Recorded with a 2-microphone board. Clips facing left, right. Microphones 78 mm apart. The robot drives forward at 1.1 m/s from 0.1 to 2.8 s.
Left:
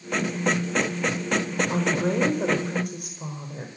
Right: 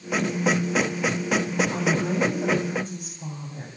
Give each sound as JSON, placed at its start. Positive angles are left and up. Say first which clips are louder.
{"t": 1.7, "sound": "a woman speaking", "louder": "left 1 dB", "side_deg": 85, "distance_m": 4.5}